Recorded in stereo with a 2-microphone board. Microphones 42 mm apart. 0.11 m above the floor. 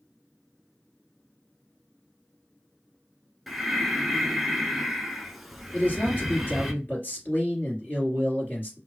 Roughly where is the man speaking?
Left.